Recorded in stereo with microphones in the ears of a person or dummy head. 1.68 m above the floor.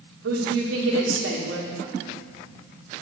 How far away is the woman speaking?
About 1.5 m.